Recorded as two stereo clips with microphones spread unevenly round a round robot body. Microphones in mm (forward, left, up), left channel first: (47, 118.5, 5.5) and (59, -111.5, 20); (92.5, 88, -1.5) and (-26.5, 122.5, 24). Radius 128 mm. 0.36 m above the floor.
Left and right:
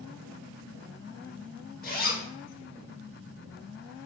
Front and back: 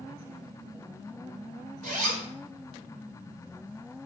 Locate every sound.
1.8 s a zipper: straight behind, 1.5 m